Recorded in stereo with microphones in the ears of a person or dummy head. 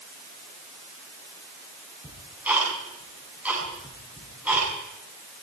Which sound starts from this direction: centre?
Ticking, at 2.0 s.